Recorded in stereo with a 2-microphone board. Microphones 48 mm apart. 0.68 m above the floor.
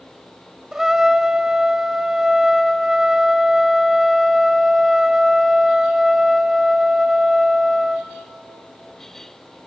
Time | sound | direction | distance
0.7 | a trumpet | 10° right (ahead or behind) | 0.8 m